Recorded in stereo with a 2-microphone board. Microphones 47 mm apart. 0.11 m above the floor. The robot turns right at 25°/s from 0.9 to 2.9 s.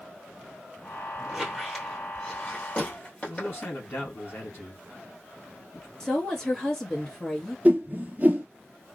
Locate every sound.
1.3 s a squeak: 5° right (ahead or behind), 1.6 m; by 3.8 s 30° left (ahead or behind), 1.6 m
3.2 s a man speaking: 45° left (ahead or behind), 2.5 m
6.0 s a woman speaking: 15° left (ahead or behind), 1.4 m
7.7 s a whoosh: 35° right (ahead or behind), 0.5 m